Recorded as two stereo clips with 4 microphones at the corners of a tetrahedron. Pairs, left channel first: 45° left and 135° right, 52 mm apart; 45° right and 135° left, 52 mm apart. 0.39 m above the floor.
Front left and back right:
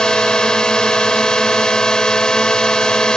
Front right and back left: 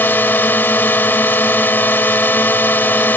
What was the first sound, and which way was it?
A drone, 25° right.